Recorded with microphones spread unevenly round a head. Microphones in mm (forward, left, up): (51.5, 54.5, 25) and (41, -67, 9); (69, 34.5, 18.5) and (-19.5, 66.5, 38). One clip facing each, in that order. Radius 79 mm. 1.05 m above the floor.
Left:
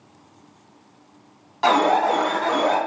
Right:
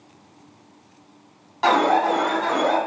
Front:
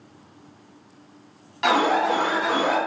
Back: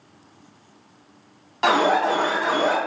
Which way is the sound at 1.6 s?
170° right.